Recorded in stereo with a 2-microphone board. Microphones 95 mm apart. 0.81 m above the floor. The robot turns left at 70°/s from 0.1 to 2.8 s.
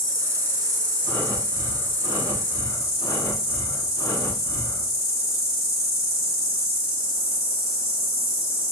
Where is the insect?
140° right, 1.5 m; by 8.7 s 35° left, 1.5 m.